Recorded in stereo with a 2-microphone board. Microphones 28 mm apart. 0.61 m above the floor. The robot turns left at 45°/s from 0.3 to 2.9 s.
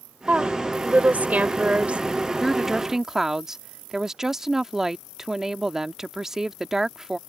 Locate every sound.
0.3 s a woman speaking: 50° right; by 2.0 s 130° right
2.4 s a woman speaking: centre (ahead or behind); by 7.2 s 15° right (ahead or behind)